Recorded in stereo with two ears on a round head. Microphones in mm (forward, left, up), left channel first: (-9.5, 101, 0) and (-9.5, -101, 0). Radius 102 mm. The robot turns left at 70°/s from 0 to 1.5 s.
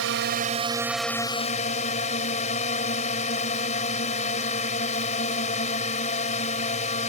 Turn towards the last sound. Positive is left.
turn(degrees=145)